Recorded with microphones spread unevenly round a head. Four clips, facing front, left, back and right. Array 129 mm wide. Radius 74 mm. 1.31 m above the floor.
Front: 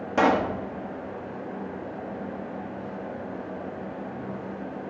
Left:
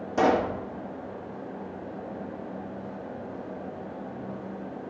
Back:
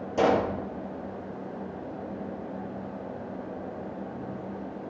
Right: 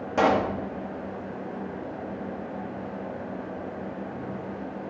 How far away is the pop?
About 2.5 m.